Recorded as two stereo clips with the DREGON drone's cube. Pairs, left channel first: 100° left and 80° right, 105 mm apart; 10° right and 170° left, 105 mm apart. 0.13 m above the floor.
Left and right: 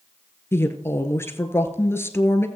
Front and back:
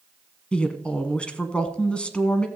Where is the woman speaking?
60° left, 1.1 m.